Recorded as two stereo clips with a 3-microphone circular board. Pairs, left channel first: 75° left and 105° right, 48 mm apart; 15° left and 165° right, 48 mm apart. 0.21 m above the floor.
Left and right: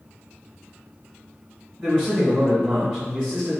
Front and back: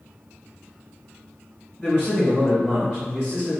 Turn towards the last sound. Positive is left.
turn(degrees=-30)